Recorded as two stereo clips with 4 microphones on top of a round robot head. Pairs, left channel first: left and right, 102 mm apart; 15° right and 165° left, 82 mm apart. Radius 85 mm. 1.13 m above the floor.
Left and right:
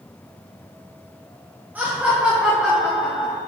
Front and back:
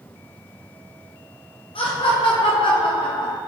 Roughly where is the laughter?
Ahead.